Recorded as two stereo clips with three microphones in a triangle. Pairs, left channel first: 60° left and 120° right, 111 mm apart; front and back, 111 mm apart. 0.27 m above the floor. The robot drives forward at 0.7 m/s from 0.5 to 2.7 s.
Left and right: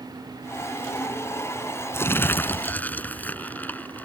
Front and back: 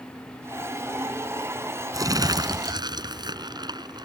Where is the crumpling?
125° left; by 4.1 s 135° left.